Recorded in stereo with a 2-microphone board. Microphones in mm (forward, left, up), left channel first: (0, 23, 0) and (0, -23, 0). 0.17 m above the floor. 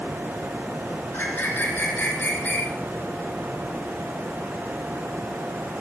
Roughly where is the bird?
Left.